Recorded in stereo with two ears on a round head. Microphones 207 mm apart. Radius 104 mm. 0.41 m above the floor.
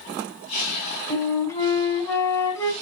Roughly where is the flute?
Centre.